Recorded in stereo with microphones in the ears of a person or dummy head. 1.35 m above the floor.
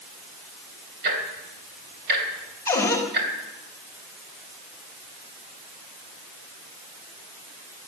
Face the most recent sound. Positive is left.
turn(degrees=20)  # may be behind; listen again after turning